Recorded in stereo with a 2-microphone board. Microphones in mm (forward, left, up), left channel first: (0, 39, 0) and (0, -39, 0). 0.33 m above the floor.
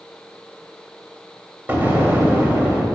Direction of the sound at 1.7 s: 25° right (ahead or behind).